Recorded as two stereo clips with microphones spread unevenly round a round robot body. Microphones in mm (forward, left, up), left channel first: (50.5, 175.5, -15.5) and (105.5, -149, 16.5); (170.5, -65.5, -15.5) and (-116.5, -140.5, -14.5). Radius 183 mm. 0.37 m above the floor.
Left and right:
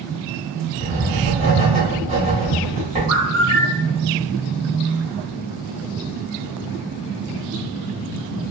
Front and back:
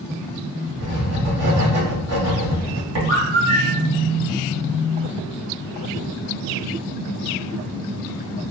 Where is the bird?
135° right, 1.3 m.